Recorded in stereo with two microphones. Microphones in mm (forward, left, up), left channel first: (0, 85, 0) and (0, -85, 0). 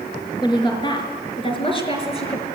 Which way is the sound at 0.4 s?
25° left (ahead or behind).